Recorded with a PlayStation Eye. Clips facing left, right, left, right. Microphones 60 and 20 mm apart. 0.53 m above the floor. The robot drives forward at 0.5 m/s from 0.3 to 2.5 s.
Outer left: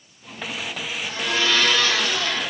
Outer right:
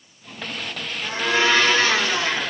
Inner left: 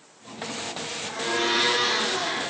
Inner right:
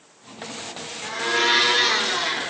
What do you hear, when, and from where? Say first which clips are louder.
1.0 s a blender: outer right 4 dB, inner right 5 dB; 40° right (ahead or behind), 1.7 m; by 2.5 s 30° right (ahead or behind), 2 m